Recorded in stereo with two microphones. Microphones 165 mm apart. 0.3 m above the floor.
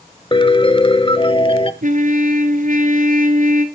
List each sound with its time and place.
0.3 s a piano: 35° left (ahead or behind), 0.8 m
1.8 s a trumpet: 55° right (ahead or behind), 1.4 m